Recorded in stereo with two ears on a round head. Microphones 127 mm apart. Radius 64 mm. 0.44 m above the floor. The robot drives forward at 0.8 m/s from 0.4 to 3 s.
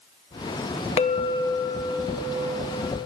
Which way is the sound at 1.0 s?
45° left (ahead or behind).